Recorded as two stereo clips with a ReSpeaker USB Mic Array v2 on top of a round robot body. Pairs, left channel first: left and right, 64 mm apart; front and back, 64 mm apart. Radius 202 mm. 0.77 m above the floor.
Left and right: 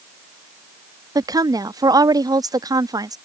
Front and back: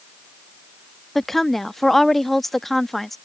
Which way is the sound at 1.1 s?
85° right.